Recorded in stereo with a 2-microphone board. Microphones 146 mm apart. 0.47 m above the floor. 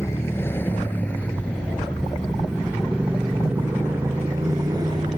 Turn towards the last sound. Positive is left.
turn(degrees=-30)  # may be behind; listen again after turning